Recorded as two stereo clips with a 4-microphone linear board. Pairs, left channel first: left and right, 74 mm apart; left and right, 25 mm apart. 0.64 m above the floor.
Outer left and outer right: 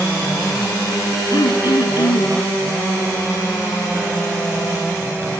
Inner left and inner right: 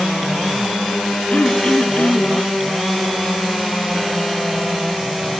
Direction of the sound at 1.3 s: 60° left (ahead or behind).